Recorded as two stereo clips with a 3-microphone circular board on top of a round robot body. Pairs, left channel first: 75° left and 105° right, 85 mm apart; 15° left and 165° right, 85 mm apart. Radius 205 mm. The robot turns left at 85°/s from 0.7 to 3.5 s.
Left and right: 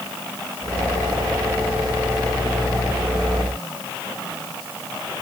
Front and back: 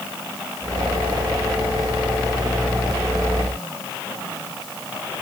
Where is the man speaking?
I don't hear a man speaking.